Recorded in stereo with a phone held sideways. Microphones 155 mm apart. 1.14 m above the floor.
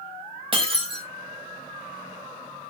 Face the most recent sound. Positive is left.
turn(degrees=-35)  # may be behind; listen again after turning